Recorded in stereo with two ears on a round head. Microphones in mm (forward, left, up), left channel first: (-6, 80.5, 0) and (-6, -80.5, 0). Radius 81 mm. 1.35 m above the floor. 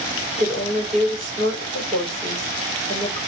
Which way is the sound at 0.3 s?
45° right (ahead or behind).